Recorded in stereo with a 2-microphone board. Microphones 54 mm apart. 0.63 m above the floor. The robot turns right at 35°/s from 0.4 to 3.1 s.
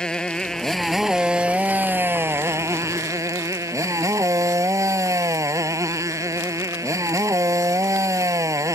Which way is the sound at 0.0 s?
165° left.